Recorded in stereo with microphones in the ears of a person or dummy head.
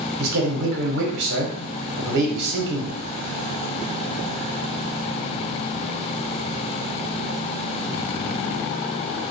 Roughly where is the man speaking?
Right.